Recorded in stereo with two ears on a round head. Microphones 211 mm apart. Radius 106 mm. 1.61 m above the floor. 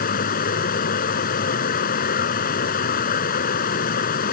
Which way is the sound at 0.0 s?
40° left (ahead or behind).